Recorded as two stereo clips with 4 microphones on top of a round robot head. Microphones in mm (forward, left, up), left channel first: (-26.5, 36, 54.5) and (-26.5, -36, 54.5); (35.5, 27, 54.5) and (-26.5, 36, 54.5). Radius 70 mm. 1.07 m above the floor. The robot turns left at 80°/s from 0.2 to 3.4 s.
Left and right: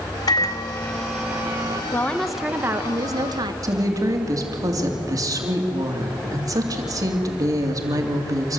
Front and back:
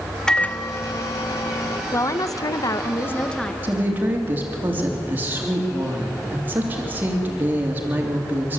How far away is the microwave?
About 1.0 m.